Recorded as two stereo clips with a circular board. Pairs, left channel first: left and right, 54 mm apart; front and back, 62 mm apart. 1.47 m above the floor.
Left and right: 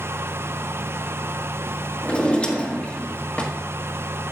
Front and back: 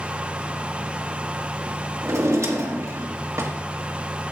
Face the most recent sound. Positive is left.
turn(degrees=150)